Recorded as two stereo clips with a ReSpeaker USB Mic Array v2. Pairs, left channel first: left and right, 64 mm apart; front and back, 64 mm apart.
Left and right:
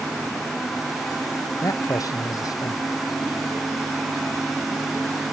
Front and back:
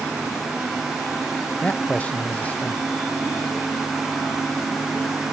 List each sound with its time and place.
1.6 s a man speaking: 65° left